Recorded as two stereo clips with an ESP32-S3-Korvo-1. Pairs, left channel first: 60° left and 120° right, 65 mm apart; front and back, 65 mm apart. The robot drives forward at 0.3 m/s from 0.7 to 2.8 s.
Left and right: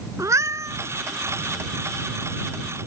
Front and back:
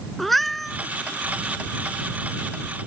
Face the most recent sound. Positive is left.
turn(degrees=-110)